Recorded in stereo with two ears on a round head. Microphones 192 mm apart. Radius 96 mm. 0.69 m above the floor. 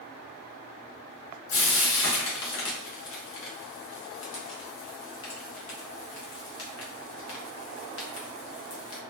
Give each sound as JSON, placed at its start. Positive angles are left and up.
{"t": 1.5, "sound": "frying", "side_deg": 70, "distance_m": 1.1}